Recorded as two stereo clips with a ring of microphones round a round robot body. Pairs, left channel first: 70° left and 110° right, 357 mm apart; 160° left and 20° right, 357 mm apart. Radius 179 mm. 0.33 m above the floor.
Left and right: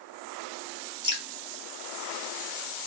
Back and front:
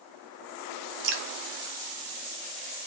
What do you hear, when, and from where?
1.0 s dripping: 45° right, 0.6 m